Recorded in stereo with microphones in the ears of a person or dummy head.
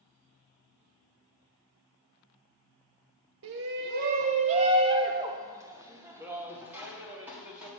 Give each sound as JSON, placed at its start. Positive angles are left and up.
{"t": 3.4, "sound": "a shout", "side_deg": -55, "distance_m": 0.8}